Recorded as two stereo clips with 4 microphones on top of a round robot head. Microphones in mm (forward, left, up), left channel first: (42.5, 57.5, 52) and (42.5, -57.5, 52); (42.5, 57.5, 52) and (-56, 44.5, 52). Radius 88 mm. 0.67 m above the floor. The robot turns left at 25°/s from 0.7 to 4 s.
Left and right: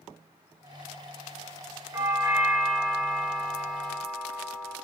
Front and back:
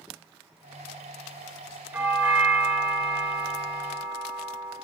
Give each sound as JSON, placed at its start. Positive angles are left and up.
{"t": 1.9, "sound": "a doorbell", "azimuth_deg": -120, "distance_m": 1.0}